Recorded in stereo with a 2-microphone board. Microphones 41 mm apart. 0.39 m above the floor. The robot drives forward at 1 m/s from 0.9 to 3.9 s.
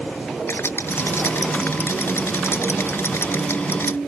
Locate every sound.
0.5 s a rattle: 75° left (ahead or behind); by 4.0 s 85° left